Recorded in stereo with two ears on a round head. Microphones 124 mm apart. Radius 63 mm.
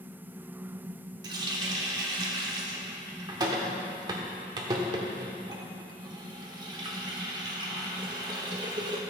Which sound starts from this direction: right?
A running tap, at 1.2 s.